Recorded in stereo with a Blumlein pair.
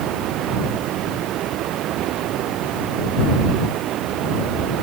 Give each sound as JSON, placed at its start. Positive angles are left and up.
{"t": 0.0, "sound": "running water", "azimuth_deg": -35}